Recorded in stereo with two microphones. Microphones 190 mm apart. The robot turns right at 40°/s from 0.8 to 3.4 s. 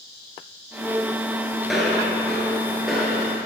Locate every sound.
1.6 s footsteps: centre (ahead or behind), 1.6 m; by 3.4 s 10° right (ahead or behind), 2 m